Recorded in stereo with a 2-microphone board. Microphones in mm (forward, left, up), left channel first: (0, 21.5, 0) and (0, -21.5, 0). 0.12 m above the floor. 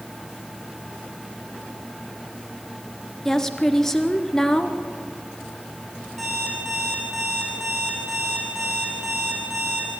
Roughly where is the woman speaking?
Centre.